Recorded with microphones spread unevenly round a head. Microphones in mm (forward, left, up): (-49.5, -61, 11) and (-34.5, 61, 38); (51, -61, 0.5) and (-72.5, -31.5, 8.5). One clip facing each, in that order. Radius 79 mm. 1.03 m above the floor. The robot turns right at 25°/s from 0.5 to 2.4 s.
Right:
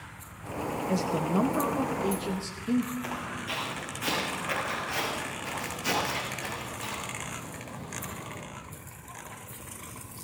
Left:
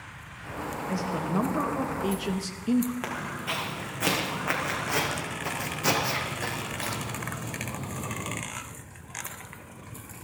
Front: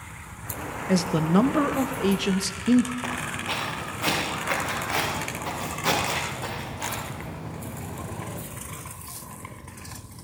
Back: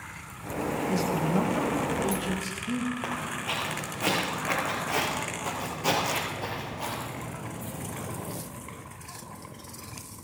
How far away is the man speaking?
About 0.7 m.